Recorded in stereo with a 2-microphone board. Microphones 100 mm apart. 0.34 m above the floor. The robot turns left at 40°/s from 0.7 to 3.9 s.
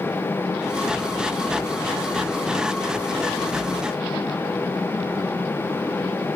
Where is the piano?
No piano in this recording.